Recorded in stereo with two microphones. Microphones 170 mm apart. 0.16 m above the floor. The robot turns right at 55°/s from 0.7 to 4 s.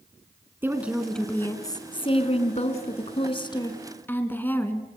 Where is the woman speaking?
20° right, 1.6 m; by 4.9 s 160° left, 1.6 m.